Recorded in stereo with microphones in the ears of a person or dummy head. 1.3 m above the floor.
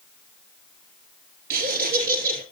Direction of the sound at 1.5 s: 50° right (ahead or behind).